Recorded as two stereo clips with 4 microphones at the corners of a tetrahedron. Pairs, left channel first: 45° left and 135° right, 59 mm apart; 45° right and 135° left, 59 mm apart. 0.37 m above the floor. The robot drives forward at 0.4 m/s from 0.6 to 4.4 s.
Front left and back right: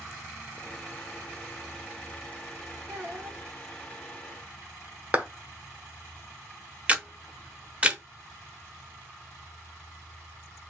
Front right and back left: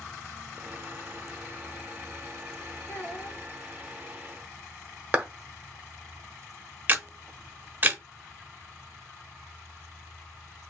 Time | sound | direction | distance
2.9 | a child speaking | 95° right | 2 m
5.1 | a clap | straight behind | 1.3 m
6.9 | a camera shutter | 170° left | 0.7 m